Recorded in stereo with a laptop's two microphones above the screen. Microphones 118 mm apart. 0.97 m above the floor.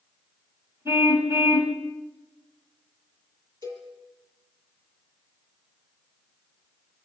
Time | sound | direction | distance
0.8 | a car horn | 20° right (ahead or behind) | 3 m
3.6 | a cowbell | 40° right (ahead or behind) | 9 m